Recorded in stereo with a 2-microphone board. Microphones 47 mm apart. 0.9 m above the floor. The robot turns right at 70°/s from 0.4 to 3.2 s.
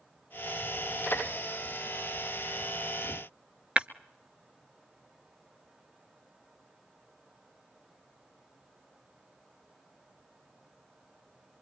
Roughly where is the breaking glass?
Right.